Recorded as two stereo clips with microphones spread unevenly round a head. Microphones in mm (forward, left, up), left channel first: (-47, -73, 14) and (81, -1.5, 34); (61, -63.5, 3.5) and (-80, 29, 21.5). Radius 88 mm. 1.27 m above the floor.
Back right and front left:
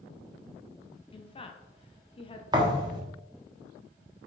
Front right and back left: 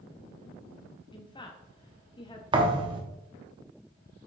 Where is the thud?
90° left, 1.1 m.